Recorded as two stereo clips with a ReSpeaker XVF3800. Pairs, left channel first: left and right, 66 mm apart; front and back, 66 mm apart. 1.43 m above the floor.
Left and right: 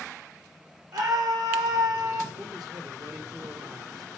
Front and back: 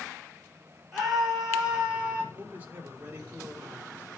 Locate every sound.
0.9 s a scream: 95° right, 4.5 m; by 2.2 s 110° right, 3 m
2.3 s a man speaking: 115° right, 1.9 m